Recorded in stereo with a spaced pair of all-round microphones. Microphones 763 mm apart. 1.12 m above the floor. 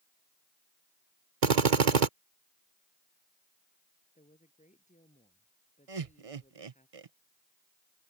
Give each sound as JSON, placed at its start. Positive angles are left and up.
{"t": 1.4, "sound": "a drill", "side_deg": -65}
{"t": 4.2, "sound": "a woman speaking", "side_deg": 10}
{"t": 5.9, "sound": "laughter", "side_deg": -45}